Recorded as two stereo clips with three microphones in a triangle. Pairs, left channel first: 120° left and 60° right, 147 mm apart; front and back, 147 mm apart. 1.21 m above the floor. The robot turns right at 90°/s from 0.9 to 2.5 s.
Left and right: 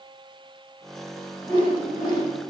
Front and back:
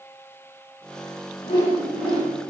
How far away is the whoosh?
About 1.3 m.